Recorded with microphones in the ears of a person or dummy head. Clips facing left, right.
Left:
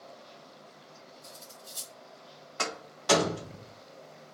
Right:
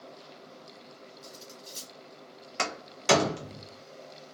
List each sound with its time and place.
1.2 s cutlery clinking: 60° right (ahead or behind), 1.3 m
2.6 s a door slam: 30° right (ahead or behind), 0.6 m